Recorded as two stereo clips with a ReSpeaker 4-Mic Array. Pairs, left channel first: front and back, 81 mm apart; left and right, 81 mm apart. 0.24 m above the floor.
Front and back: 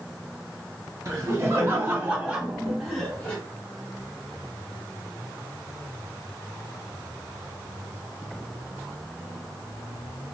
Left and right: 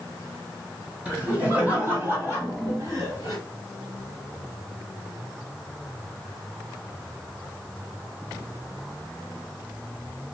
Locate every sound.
1.1 s laughter: 160° right, 1.9 m; by 3.4 s 70° right, 1.9 m